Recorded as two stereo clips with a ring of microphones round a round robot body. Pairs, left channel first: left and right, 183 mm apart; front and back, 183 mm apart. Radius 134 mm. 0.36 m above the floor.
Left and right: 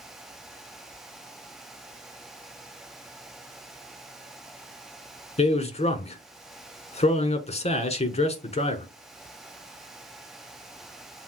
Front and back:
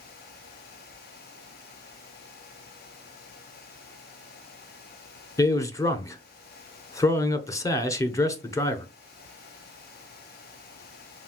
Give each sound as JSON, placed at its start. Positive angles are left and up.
{"t": 5.4, "sound": "a man speaking", "azimuth_deg": 65, "distance_m": 1.1}